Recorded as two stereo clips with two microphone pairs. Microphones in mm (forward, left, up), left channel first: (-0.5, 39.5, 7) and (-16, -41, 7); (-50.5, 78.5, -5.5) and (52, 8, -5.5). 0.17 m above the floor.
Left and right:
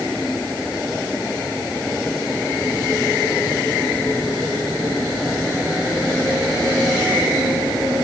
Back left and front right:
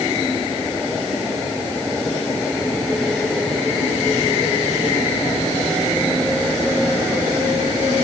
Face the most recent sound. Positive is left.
No sound to turn to.